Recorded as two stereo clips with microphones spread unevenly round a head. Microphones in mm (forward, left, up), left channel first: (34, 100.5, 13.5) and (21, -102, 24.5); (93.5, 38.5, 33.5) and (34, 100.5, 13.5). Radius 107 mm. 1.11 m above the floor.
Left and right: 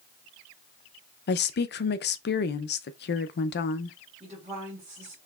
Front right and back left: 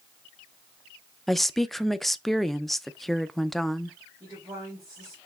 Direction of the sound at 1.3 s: 45° left.